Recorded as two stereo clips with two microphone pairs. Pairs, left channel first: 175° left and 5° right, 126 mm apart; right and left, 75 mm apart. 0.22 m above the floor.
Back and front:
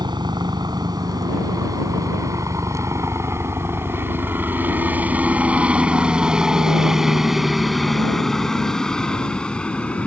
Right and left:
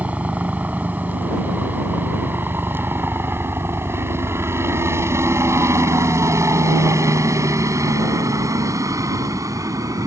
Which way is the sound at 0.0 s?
30° left.